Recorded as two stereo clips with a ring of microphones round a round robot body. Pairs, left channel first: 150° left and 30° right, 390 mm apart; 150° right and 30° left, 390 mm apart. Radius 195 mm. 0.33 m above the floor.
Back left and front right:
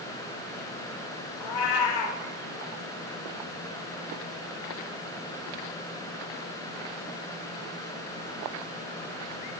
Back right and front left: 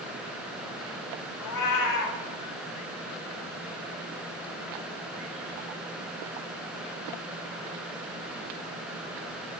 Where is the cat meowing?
170° left, 0.7 m.